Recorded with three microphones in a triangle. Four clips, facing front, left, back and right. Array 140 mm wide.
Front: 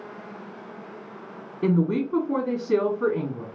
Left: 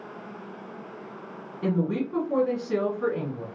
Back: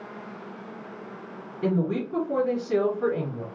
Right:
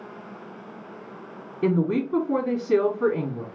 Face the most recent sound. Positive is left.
turn(degrees=-50)